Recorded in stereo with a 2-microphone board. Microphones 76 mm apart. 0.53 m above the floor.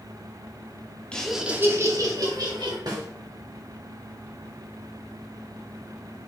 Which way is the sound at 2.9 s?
60° right (ahead or behind).